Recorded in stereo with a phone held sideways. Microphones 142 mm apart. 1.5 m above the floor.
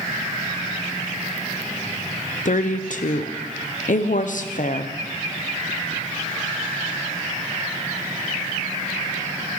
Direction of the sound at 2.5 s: 65° left (ahead or behind).